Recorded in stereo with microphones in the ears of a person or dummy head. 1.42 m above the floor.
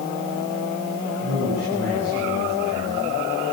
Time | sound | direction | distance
1.2 | a man speaking | 55° right (ahead or behind) | 9.5 m